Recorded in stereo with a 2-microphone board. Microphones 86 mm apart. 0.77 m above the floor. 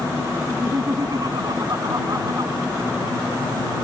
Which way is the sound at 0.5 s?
50° right (ahead or behind).